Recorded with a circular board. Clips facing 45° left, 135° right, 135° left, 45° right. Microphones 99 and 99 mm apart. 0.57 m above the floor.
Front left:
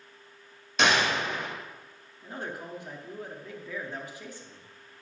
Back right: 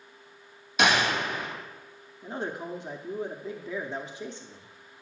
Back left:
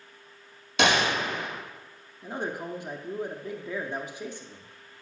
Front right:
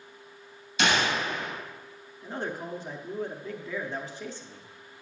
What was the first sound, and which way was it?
A gunshot, 140° left.